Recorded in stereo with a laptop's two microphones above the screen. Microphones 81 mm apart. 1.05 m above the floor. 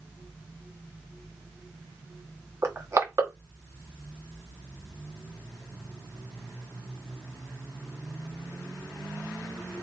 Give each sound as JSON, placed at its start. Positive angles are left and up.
{"t": 2.6, "sound": "crushing", "side_deg": -40, "distance_m": 2.0}